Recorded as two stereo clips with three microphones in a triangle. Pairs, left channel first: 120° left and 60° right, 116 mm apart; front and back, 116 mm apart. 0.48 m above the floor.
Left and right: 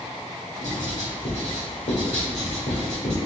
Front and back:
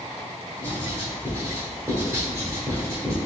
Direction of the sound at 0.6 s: 115° left.